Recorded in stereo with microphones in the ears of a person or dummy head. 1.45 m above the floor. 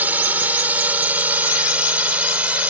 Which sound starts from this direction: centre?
A drone, at 0.0 s.